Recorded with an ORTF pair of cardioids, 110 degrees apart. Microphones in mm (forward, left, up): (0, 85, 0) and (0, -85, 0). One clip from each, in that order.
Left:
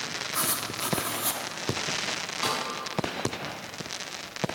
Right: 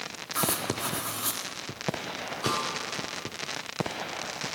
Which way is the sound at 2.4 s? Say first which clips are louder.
Even; 70° left.